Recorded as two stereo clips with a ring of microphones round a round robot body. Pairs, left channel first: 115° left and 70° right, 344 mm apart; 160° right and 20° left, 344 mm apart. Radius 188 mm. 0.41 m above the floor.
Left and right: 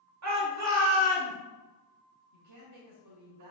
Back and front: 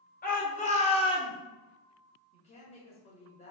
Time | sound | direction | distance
0.2 | a shout | 95° right | 2.5 m
2.3 | a woman speaking | 85° right | 2 m